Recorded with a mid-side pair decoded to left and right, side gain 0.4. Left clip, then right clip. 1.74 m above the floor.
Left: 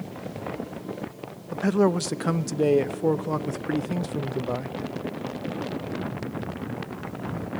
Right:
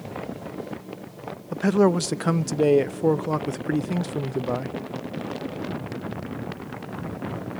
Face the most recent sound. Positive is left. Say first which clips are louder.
# right 2 dB
turn(degrees=-20)